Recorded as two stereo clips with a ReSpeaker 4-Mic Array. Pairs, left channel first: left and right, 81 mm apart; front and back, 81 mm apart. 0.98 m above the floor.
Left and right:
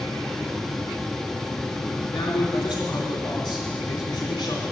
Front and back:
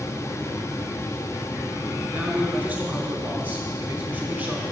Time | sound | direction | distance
2.1 | a man speaking | 110° left | 3.5 m